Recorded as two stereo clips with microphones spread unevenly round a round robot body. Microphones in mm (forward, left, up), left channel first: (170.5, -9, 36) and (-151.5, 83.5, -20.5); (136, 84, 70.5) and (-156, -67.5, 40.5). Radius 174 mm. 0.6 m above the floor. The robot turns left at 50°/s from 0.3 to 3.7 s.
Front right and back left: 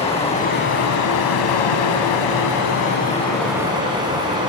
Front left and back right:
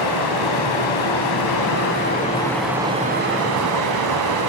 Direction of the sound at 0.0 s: 55° left.